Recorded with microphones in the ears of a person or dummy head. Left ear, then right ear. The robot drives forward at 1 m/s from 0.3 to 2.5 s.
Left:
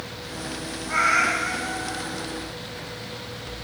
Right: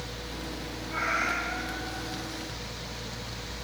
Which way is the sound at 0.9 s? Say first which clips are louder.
Left 8 dB; 80° left.